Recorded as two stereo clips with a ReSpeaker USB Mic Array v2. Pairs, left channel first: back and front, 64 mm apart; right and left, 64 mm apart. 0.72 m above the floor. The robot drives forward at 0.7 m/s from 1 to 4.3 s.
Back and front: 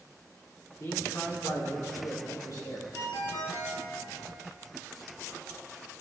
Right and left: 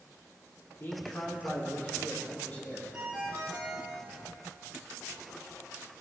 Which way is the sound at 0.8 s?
140° right.